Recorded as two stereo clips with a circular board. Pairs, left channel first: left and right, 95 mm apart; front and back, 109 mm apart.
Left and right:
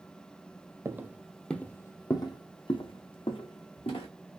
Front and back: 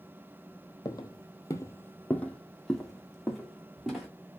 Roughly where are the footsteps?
Ahead right.